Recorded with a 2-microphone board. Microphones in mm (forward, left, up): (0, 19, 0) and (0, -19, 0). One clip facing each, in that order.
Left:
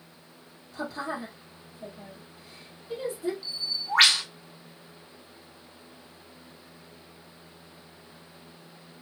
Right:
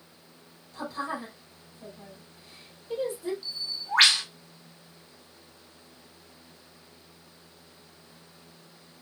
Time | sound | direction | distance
0.7 | a woman speaking | 10° left (ahead or behind) | 2.0 m
3.4 | a bird | 10° left (ahead or behind) | 1.8 m